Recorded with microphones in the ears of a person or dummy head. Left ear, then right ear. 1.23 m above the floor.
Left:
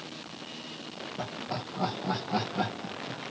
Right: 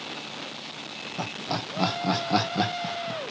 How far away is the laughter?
About 1.1 m.